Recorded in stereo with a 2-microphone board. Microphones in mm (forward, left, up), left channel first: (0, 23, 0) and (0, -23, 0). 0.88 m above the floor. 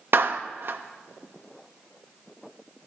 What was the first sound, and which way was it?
A clap, 55° right (ahead or behind).